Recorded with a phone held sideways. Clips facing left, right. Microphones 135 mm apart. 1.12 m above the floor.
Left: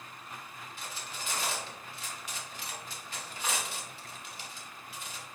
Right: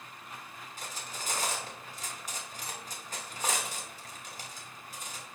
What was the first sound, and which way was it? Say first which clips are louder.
Cutlery clinking: right 1 dB; 45° right (ahead or behind).